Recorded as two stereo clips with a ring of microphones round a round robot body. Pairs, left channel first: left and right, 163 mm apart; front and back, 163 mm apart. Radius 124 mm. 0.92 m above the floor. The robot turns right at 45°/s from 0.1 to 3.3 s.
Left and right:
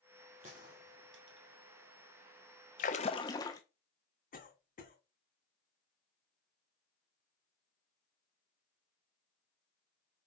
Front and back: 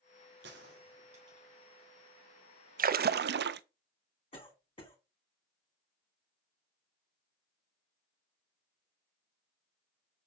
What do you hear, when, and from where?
0.4 s a gunshot: 150° right, 1.7 m; by 1.5 s 105° right, 1.7 m
2.8 s a splash: 140° left, 0.5 m; by 3.6 s 165° left, 0.5 m
4.3 s a cough: 60° left, 3.5 m